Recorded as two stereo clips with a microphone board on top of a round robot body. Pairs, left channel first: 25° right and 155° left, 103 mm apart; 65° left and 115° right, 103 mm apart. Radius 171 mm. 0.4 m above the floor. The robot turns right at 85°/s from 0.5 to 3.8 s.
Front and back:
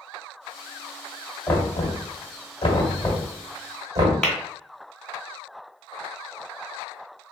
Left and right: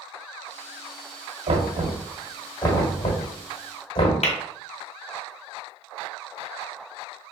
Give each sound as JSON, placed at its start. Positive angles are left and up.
{"t": 1.5, "sound": "knocking", "azimuth_deg": -100, "distance_m": 1.7}
{"t": 4.2, "sound": "tapping", "azimuth_deg": 60, "distance_m": 1.7}